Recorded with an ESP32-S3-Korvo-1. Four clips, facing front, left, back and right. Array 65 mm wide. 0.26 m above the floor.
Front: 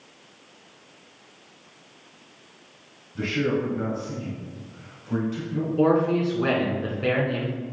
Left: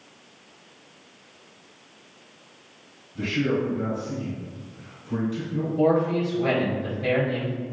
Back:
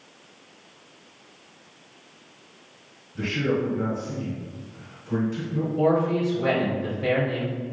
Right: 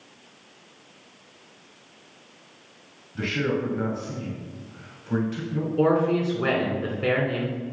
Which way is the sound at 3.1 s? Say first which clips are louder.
Left 1 dB, even; 70° right.